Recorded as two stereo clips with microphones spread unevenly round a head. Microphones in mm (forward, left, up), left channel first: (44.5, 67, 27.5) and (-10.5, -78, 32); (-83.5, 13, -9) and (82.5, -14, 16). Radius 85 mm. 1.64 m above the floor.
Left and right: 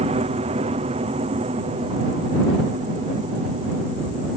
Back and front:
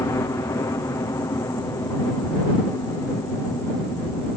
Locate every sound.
0.0 s a helicopter: 125° right